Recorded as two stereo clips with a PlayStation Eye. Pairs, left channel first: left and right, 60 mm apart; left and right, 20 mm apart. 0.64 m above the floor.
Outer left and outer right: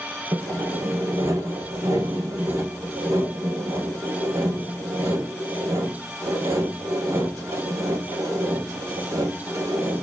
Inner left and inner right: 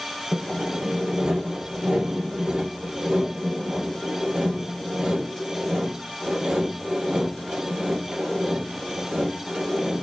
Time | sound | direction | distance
0.3 | sawing | 75° right (ahead or behind) | 1.9 m